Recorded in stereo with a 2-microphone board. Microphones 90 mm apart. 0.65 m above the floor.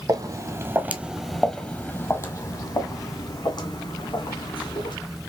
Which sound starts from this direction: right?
Footsteps, at 0.1 s.